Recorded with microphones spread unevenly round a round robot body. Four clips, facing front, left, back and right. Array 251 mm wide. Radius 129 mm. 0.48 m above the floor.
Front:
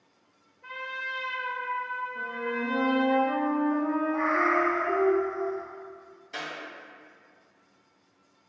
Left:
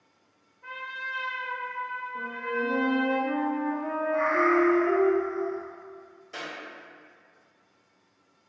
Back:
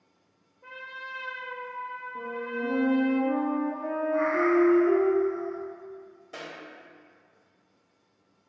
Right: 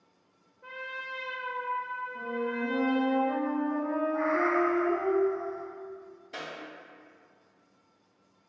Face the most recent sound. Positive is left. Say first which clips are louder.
# left 2 dB, front 3 dB
turn(degrees=-160)